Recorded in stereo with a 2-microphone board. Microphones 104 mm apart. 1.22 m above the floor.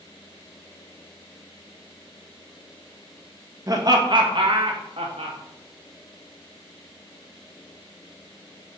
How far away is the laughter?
About 1.8 m.